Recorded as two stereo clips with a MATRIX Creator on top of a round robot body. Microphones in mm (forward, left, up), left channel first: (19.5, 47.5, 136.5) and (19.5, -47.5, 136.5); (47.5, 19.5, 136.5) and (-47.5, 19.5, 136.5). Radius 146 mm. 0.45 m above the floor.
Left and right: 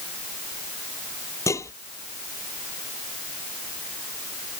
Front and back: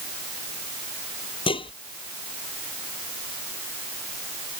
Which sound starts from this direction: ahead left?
Dishes clattering, at 1.5 s.